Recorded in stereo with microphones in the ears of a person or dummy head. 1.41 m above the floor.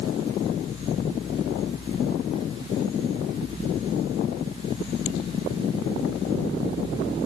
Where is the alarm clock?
I don't hear an alarm clock.